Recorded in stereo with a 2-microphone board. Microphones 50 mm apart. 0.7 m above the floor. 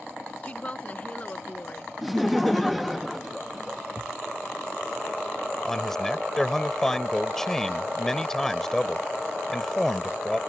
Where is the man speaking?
10° left (ahead or behind).